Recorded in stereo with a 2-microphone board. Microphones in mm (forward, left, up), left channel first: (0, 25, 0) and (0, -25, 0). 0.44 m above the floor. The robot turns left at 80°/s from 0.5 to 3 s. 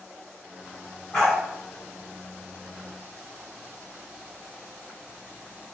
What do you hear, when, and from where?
1.1 s a dog barking: 15° left (ahead or behind), 1.6 m; by 1.4 s 5° right (ahead or behind), 1.6 m